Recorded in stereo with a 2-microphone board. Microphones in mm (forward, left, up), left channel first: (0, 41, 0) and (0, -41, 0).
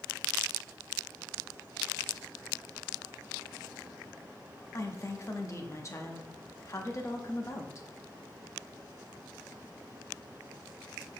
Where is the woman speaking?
35° left (ahead or behind), 0.8 m.